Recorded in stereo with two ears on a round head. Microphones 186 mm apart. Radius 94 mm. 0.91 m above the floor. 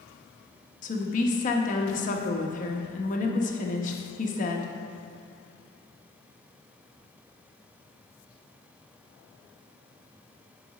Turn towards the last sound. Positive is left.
turn(degrees=40)  # may be behind; listen again after turning